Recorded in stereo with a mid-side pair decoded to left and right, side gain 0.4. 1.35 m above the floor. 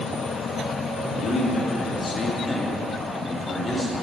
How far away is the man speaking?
About 3 m.